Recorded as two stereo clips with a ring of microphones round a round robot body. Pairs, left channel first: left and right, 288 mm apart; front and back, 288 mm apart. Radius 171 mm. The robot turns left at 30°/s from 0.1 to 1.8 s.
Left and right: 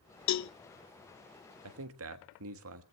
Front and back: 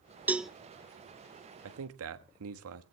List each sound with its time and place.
0.3 s a cowbell: 95° left, 0.7 m; by 0.5 s 90° left, 0.7 m
1.6 s a man speaking: 130° right, 1.3 m; by 2.8 s 135° right, 1.3 m